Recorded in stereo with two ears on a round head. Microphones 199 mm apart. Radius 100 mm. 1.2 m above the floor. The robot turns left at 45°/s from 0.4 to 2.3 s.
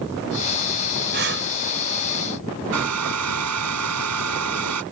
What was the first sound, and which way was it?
Breathing, 50° right (ahead or behind).